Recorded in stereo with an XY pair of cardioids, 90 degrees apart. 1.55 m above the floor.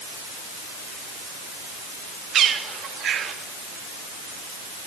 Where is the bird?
70° right, 2.5 m.